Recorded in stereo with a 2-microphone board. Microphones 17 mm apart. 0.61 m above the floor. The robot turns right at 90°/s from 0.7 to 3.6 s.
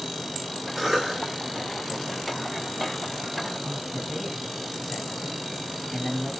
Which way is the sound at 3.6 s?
10° left (ahead or behind).